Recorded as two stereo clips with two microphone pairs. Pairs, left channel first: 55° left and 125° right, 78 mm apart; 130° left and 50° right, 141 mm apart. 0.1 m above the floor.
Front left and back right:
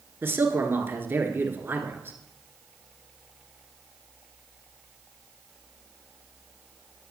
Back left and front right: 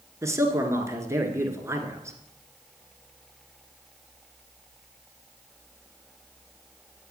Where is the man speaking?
95° right, 1.4 m.